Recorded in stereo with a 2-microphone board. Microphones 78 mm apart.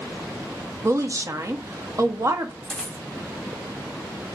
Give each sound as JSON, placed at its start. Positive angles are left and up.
{"t": 0.8, "sound": "a woman speaking", "side_deg": -40, "distance_m": 0.9}
{"t": 2.6, "sound": "a dropped coin", "side_deg": 10, "distance_m": 2.0}